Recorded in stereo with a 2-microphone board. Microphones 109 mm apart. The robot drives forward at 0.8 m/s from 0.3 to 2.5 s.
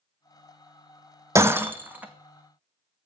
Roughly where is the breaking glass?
Right.